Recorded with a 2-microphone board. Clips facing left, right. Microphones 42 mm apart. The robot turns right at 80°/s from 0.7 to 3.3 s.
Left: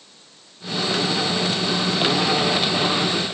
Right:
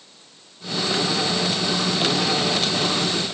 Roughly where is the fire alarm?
No fire alarm in this recording.